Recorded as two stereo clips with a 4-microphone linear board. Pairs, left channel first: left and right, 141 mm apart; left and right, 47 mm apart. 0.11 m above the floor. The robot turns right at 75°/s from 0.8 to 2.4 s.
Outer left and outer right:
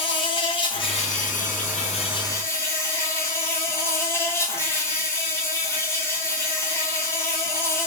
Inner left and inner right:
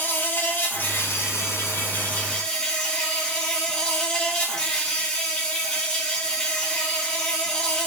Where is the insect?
40° left, 1.2 m; by 7.9 s 160° left, 1.2 m.